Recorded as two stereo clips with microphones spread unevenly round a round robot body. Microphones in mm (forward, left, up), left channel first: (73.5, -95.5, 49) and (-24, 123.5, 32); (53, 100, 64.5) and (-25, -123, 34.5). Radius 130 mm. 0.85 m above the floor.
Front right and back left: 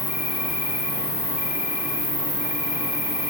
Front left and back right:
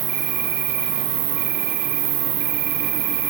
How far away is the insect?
About 3 m.